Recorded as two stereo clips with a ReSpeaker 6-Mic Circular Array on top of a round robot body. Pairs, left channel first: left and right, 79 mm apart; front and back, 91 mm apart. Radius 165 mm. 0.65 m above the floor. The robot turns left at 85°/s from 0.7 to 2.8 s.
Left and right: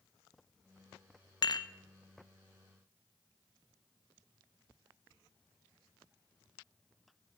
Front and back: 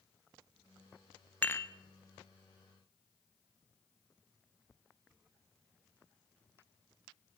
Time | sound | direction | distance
1.4 | dishes clattering | 70° left | 0.6 m